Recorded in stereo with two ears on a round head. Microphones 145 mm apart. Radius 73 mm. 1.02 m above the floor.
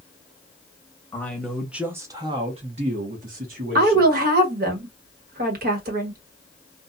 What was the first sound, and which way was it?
A man speaking, 15° left (ahead or behind).